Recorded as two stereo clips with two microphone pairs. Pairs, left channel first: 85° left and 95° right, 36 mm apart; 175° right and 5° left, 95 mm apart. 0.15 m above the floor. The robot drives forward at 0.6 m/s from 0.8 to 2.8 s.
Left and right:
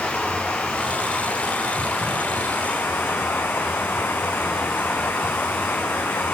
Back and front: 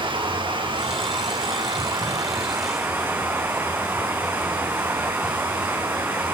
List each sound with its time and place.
0.0 s running water: 40° left, 2.0 m; by 6.3 s 75° left, 1.2 m